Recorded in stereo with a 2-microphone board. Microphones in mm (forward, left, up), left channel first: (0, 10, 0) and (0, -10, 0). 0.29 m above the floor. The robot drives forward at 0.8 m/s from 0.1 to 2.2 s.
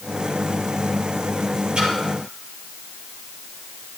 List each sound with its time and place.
1.8 s a splash: 60° right (ahead or behind), 3.5 m; by 1.9 s 55° right (ahead or behind), 4 m